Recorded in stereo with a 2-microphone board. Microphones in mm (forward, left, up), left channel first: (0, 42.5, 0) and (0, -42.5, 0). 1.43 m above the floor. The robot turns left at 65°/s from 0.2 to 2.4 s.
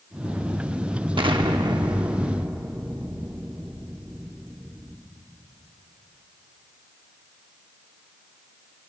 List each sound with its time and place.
1.2 s an explosion: 85° right, 0.8 m; by 5.0 s 165° right, 0.8 m